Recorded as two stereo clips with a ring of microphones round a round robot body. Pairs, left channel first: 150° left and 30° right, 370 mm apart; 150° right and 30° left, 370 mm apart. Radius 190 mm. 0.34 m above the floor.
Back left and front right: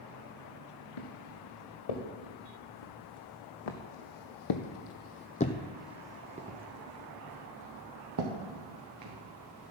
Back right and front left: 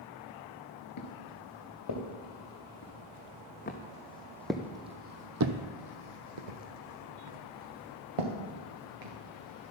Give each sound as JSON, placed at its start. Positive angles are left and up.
{"t": 1.0, "sound": "footsteps", "azimuth_deg": 165, "distance_m": 3.0}